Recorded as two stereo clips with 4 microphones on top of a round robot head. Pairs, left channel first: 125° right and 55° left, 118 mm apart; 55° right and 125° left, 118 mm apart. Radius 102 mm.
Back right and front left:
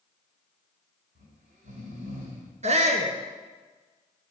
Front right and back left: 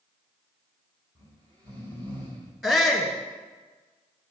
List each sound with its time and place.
1.1 s snoring: 70° left, 2.5 m
2.6 s a shout: 35° left, 1.4 m